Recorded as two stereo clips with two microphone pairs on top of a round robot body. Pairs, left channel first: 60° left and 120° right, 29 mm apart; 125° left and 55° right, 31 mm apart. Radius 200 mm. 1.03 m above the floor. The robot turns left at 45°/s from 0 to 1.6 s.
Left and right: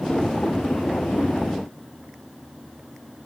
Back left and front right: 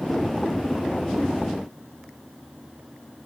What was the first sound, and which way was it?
Only background noise.